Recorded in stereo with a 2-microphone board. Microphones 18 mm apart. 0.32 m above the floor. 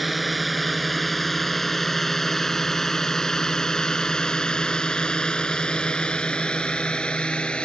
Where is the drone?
5° right (ahead or behind); by 7.7 s 65° left (ahead or behind).